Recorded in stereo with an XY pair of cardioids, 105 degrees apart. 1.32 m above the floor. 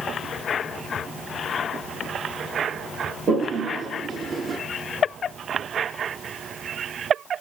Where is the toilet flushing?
50° right, 3 m.